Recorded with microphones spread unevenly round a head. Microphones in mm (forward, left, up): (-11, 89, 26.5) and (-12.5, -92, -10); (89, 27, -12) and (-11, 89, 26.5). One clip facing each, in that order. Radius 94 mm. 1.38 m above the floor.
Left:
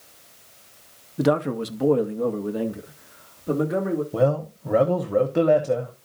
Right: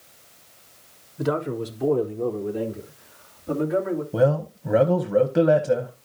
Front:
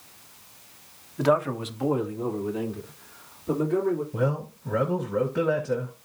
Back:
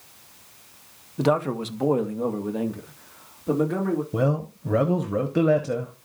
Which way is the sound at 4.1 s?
170° right.